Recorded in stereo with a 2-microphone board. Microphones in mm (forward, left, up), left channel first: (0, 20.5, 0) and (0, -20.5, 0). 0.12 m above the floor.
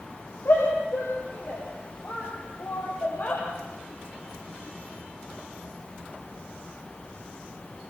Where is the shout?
65° left (ahead or behind), 8 m.